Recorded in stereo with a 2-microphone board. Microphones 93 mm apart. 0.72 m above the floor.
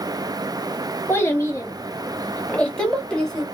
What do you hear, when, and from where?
1.1 s a child speaking: 25° left (ahead or behind), 0.7 m; by 3.5 s 5° left (ahead or behind), 1.5 m